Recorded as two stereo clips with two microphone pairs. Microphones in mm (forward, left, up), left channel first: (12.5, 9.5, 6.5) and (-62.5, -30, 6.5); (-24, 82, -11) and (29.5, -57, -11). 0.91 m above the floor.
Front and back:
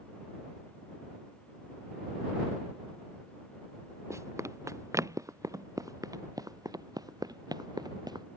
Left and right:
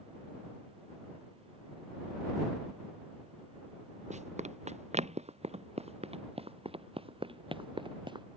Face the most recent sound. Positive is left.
turn(degrees=-125)